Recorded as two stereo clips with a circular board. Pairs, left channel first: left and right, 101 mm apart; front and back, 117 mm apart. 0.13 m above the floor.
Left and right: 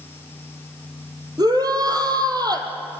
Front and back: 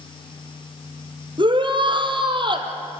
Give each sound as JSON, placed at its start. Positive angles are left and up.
{"t": 1.4, "sound": "a shout", "azimuth_deg": -135, "distance_m": 3.5}